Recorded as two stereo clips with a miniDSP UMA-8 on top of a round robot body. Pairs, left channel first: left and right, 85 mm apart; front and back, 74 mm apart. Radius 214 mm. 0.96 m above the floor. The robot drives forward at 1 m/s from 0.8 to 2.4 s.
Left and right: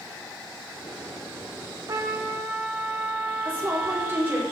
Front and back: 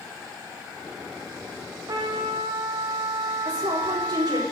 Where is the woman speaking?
155° right, 4 m.